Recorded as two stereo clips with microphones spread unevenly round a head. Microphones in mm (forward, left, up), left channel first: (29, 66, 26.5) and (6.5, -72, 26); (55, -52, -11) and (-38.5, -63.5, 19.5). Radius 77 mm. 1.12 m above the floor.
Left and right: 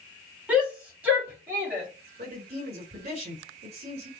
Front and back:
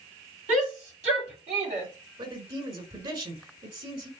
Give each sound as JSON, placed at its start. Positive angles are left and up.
{"t": 0.5, "sound": "a shout", "azimuth_deg": 180, "distance_m": 3.0}
{"t": 2.2, "sound": "a man speaking", "azimuth_deg": -145, "distance_m": 4.0}